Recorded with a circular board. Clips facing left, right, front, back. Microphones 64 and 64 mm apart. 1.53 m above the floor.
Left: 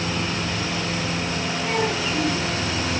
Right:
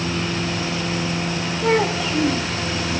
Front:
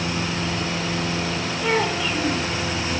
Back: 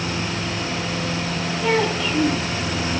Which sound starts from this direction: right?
A child speaking, at 1.6 s.